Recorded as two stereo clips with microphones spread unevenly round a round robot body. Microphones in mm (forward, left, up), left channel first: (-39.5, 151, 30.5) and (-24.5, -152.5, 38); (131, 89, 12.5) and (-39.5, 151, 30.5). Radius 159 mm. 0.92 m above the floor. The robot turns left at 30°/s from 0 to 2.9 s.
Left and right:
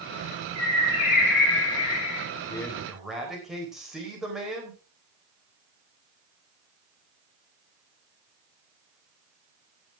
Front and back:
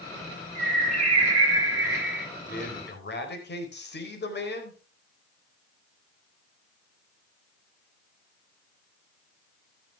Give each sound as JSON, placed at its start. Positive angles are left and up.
{"t": 0.6, "sound": "a bird", "azimuth_deg": 125, "distance_m": 4.5}
{"t": 2.5, "sound": "a man speaking", "azimuth_deg": 15, "distance_m": 4.0}